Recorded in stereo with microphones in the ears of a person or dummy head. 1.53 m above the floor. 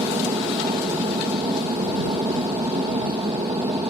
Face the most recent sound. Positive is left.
turn(degrees=-20)  # may be behind; listen again after turning